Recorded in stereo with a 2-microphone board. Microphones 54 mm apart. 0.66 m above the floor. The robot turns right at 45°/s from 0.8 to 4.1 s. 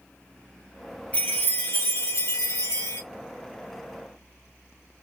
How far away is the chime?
About 2.0 m.